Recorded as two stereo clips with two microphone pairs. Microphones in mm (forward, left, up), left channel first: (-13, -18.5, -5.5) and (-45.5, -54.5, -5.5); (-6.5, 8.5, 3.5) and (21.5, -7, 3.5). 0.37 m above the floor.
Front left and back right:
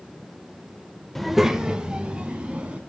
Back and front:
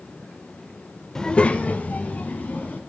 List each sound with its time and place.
1.1 s a child speaking: 135° left, 0.5 m; by 2.8 s 165° left, 2 m